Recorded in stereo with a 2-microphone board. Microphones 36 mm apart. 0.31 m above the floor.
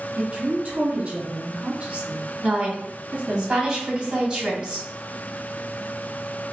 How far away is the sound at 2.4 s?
About 1.8 m.